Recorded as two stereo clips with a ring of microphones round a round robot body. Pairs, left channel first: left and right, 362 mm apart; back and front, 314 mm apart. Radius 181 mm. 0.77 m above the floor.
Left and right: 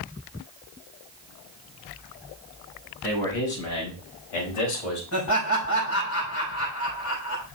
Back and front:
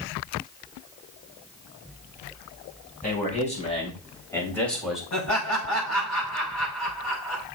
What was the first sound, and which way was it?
A man speaking, 115° left.